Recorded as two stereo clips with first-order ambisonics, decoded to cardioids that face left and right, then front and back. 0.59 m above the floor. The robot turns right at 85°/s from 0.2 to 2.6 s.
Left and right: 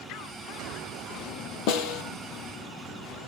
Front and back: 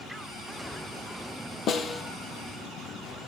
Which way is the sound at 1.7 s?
55° left.